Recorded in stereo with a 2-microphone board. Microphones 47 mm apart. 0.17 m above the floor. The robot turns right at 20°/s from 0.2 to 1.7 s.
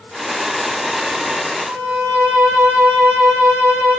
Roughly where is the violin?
Right.